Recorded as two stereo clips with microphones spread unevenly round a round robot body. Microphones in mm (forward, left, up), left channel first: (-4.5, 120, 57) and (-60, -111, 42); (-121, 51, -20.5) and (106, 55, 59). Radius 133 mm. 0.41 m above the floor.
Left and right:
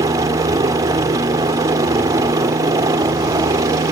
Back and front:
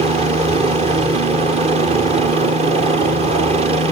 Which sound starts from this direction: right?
A helicopter, at 0.0 s.